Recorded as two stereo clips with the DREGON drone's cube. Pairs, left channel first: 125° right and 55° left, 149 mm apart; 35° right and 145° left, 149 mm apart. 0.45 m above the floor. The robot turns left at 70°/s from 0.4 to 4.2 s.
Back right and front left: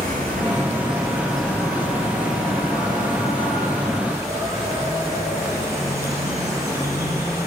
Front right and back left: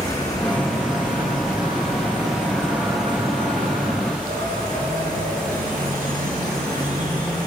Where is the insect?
35° left, 6 m; by 7.5 s 125° left, 6 m.